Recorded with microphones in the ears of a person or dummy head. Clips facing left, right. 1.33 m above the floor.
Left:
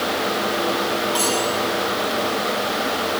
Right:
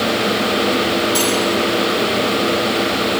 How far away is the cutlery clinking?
About 7.5 m.